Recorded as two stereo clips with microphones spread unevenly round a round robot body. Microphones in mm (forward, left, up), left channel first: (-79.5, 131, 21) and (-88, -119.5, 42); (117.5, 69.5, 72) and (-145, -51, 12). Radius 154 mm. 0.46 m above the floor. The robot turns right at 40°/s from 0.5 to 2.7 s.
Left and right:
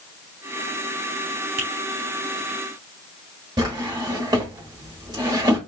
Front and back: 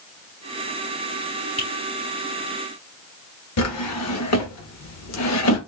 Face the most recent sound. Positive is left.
turn(degrees=-15)